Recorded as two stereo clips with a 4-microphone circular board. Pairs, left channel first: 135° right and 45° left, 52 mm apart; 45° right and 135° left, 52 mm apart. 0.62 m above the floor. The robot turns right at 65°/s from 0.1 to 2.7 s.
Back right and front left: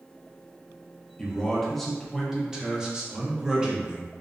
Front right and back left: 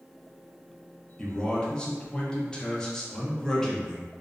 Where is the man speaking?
95° right, 0.5 m; by 4.1 s 5° left, 0.5 m.